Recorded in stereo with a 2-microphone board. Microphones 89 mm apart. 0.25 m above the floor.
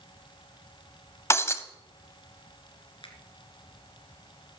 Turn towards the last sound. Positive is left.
turn(degrees=75)  # may be behind; listen again after turning